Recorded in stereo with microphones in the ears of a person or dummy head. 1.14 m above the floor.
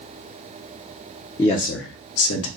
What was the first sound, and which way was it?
A man speaking, 15° left (ahead or behind).